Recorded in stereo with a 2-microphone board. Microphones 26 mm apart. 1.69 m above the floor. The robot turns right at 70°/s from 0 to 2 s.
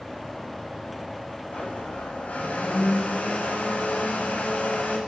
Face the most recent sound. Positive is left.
turn(degrees=100)